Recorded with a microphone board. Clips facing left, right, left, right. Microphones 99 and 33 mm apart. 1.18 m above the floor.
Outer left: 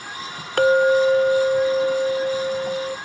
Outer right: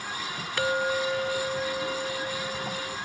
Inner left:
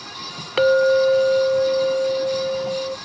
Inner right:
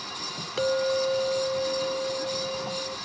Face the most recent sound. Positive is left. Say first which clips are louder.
# outer left 12 dB, inner left 10 dB
turn(degrees=50)  # may be behind; listen again after turning